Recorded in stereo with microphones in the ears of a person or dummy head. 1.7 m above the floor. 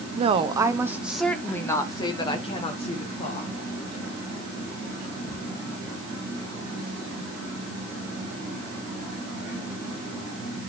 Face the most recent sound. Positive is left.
turn(degrees=40)  # may be behind; listen again after turning